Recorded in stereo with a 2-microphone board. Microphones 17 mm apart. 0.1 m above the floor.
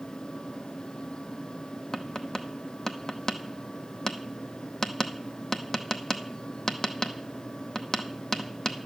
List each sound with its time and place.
1.9 s tapping: 35° left (ahead or behind), 0.8 m